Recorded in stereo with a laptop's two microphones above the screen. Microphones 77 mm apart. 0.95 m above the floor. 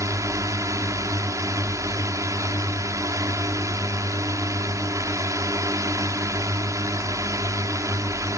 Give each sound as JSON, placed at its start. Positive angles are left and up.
{"t": 0.0, "sound": "a drone", "side_deg": -45}